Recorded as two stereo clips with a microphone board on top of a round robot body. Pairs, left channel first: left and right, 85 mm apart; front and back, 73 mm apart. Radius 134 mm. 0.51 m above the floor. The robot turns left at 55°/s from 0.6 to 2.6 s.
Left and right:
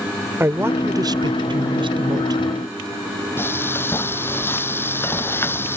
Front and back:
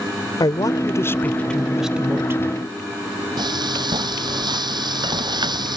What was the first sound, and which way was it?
A man speaking, 30° right.